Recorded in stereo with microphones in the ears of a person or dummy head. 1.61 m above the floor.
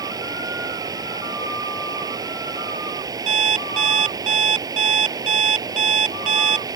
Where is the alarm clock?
40° right (ahead or behind).